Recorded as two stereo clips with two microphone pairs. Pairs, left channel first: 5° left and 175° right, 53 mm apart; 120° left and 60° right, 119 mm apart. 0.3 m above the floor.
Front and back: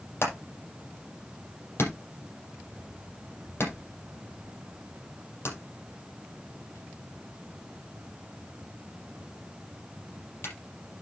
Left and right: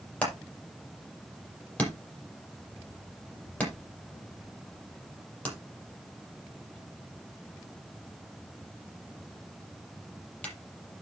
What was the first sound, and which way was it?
Hammering, 45° left.